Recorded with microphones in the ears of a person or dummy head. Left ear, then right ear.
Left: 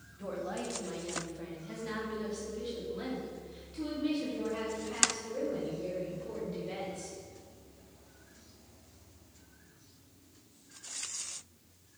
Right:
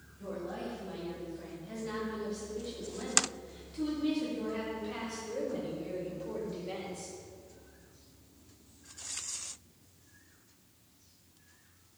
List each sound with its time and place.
0.2 s a woman speaking: 35° left (ahead or behind), 2 m; by 7.1 s 15° right (ahead or behind), 5 m